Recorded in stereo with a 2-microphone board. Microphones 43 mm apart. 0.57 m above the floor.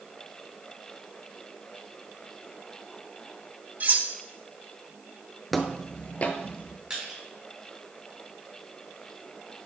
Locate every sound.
3.8 s cutlery clinking: 40° right (ahead or behind), 0.6 m
5.5 s footsteps: 5° left (ahead or behind), 0.6 m; by 6.8 s 50° left (ahead or behind), 0.9 m
6.9 s crushing: 15° right (ahead or behind), 2 m